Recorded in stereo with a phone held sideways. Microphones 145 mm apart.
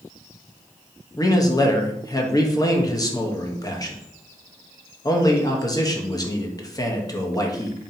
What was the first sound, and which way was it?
A man speaking, 25° left (ahead or behind).